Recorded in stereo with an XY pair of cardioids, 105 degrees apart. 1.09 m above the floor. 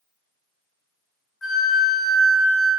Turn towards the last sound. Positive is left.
turn(degrees=40)